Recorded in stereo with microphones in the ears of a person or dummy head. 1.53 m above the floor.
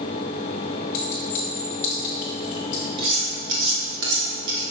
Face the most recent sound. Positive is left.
turn(degrees=-60)  # may be behind; listen again after turning